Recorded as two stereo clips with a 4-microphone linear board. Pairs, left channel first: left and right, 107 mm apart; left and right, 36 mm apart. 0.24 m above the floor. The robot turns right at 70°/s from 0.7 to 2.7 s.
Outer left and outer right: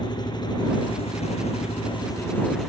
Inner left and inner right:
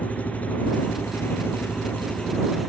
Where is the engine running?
45° left; by 2.7 s 175° right.